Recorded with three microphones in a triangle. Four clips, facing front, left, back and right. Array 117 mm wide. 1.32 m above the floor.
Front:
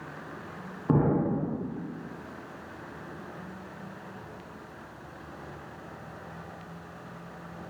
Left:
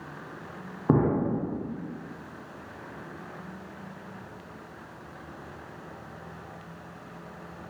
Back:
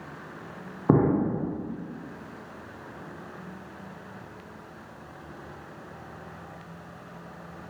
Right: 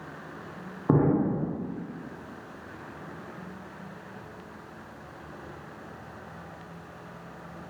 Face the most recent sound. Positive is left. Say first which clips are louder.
# right 1 dB, back 3 dB
turn(degrees=175)